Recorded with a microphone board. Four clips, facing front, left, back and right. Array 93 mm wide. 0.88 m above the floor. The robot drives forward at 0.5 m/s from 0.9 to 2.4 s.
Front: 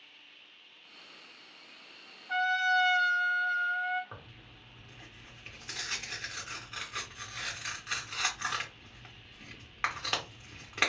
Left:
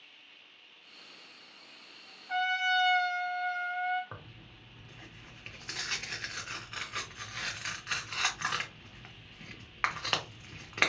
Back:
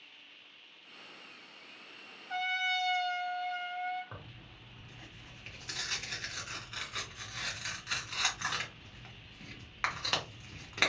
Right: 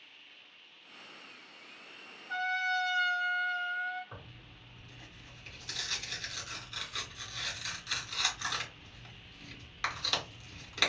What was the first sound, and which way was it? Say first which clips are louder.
A trumpet: left 3 dB, front 7 dB; 35° left.